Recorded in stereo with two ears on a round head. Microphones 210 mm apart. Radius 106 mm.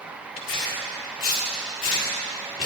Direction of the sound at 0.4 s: 55° left (ahead or behind).